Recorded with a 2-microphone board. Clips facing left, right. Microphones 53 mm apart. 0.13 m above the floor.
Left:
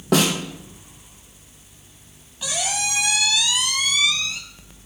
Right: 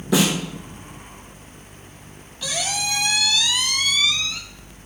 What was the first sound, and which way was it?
A snare drum, 60° left (ahead or behind).